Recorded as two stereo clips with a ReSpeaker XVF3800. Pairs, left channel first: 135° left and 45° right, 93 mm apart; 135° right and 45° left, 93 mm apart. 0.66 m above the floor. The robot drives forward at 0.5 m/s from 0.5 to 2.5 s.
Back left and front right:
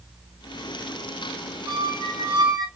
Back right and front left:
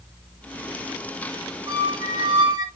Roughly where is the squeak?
Ahead.